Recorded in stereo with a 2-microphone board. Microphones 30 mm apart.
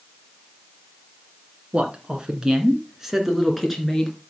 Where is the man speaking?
35° right (ahead or behind), 2 m; by 4.2 s 10° left (ahead or behind), 2.5 m.